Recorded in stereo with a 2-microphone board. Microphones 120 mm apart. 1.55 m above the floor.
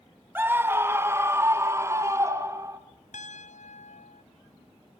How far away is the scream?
About 1.6 m.